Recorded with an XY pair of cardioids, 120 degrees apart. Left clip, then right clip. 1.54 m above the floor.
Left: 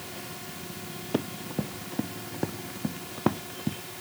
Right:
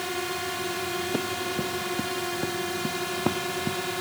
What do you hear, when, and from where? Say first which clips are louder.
0.0 s a drone: right 11 dB; 70° right
1.1 s running footsteps: right 4 dB; 15° left